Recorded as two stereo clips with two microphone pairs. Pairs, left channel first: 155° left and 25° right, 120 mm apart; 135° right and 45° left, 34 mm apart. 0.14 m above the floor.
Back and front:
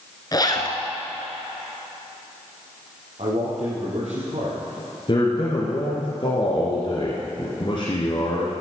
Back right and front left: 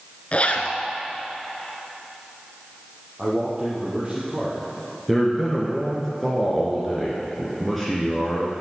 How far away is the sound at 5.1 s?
About 1.8 m.